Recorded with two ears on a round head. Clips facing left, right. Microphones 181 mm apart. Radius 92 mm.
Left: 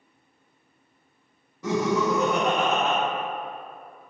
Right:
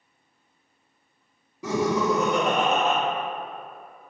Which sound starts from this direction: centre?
Laughter, at 1.6 s.